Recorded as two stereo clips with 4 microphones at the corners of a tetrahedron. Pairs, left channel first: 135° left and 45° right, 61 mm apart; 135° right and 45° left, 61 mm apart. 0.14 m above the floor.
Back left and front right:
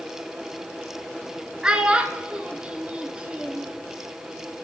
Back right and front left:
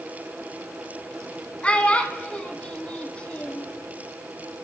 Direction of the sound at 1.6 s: 95° right.